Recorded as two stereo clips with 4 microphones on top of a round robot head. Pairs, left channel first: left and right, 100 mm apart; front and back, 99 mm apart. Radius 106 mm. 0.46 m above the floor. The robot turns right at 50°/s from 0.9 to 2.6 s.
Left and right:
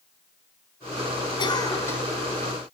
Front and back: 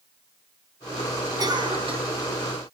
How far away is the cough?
About 4.5 m.